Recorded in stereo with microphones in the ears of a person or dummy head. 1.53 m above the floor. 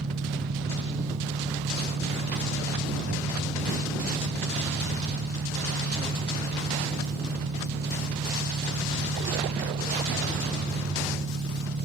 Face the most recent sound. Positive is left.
turn(degrees=-55)  # may be behind; listen again after turning